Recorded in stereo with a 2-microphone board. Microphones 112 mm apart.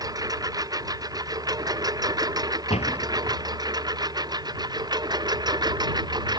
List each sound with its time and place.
0.0 s a lawn mower: 35° right (ahead or behind); by 6.4 s 40° right (ahead or behind)
2.7 s a door slam: 70° left (ahead or behind)